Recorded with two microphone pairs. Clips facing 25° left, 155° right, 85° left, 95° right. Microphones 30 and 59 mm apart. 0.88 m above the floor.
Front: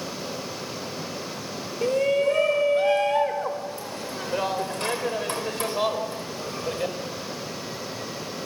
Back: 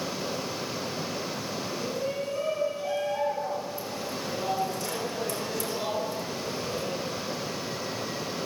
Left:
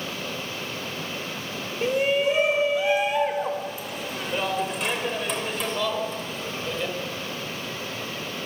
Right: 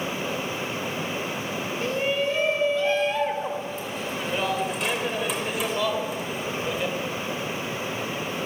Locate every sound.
1.8 s a shout: 15° left, 4 m; by 7.0 s 15° right, 5 m